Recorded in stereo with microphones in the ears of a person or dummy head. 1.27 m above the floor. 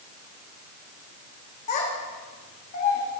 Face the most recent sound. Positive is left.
turn(degrees=45)  # may be behind; listen again after turning